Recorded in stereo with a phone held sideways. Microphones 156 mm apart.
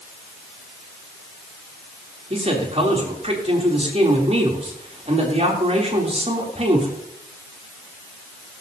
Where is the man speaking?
40° right (ahead or behind), 3 m.